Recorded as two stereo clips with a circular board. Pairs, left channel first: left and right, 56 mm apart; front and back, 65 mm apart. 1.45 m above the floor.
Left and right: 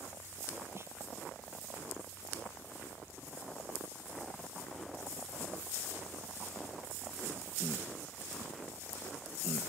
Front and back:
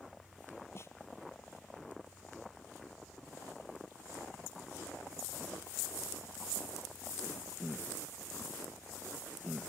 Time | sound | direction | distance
0.8 | a snare drum | 50° right | ?